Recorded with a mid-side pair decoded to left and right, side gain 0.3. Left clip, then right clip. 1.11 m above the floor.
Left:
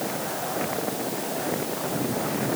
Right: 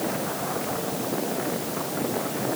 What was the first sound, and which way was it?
Only background noise.